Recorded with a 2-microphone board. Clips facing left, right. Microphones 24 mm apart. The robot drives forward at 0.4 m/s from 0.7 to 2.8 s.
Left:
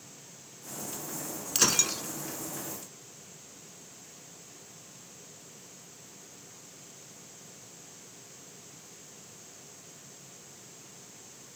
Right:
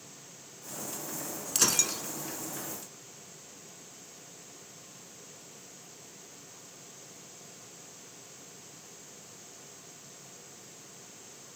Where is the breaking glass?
15° left (ahead or behind), 0.8 m; by 2.0 s 20° left (ahead or behind), 0.6 m.